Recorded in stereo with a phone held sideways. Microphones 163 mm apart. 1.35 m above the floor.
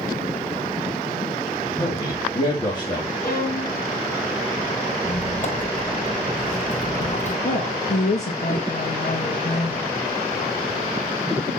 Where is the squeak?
55° left (ahead or behind), 2.5 m.